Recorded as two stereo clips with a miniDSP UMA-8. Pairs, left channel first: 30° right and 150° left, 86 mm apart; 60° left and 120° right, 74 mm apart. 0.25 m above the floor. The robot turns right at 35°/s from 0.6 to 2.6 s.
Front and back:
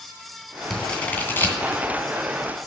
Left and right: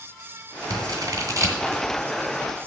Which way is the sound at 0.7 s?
115° right.